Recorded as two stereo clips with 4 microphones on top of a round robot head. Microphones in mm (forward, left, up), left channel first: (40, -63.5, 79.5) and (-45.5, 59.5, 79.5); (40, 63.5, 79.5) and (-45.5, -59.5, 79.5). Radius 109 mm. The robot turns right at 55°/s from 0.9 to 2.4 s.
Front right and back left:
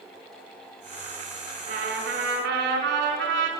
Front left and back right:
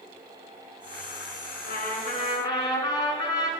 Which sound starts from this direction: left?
A trumpet, at 1.7 s.